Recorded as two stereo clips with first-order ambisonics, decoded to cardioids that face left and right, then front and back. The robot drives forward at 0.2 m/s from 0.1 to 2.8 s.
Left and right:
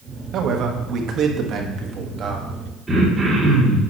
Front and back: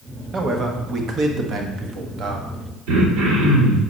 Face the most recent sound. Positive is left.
turn(degrees=-170)